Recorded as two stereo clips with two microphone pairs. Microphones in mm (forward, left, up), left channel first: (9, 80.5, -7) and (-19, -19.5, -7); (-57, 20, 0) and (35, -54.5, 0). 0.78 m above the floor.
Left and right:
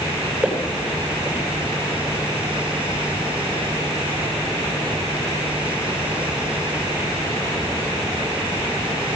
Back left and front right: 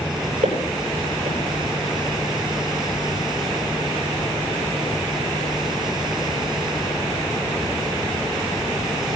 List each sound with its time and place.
0.4 s footsteps: 25° right, 8.5 m